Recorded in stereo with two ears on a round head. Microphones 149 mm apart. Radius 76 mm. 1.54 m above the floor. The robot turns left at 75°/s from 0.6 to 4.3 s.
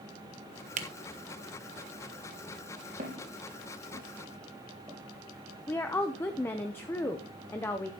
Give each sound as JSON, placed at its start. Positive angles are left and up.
{"t": 0.8, "sound": "a camera shutter", "side_deg": -40, "distance_m": 1.0}
{"t": 3.0, "sound": "footsteps", "side_deg": -55, "distance_m": 3.5}
{"t": 5.7, "sound": "a woman speaking", "side_deg": 15, "distance_m": 0.7}